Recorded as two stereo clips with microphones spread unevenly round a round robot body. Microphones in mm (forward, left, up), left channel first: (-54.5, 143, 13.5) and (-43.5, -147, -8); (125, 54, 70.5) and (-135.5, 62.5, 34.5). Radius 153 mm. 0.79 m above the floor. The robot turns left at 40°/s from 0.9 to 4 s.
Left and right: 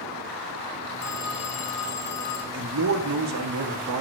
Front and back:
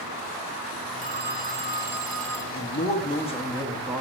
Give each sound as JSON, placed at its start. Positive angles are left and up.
{"t": 1.0, "sound": "a phone ringing", "azimuth_deg": 135, "distance_m": 1.5}
{"t": 2.5, "sound": "a man speaking", "azimuth_deg": -45, "distance_m": 1.5}